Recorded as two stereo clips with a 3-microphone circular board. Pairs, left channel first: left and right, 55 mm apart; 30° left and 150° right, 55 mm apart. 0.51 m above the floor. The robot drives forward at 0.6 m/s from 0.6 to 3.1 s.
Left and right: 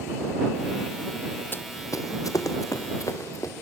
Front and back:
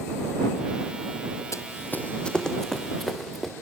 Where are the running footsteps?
40° left, 1.0 m; by 3.5 s 120° left, 3.5 m.